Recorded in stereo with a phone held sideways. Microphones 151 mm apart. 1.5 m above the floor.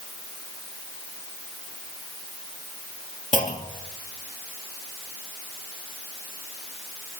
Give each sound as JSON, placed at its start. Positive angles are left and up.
{"t": 3.3, "sound": "a clunk", "side_deg": 55, "distance_m": 2.0}